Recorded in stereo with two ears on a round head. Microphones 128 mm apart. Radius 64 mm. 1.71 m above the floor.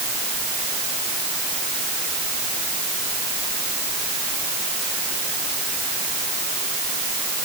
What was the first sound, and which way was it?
Only background noise.